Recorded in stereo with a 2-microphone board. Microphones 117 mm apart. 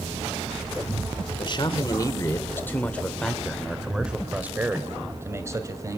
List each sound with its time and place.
1.4 s a man speaking: 40° left (ahead or behind), 1.7 m; by 6.0 s 30° right (ahead or behind), 3 m